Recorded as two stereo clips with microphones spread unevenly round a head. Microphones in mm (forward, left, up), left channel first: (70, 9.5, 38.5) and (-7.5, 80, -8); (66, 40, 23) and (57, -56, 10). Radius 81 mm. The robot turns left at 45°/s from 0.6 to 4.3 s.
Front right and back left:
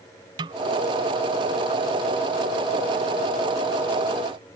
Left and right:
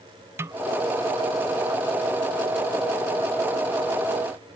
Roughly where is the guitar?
No guitar in this recording.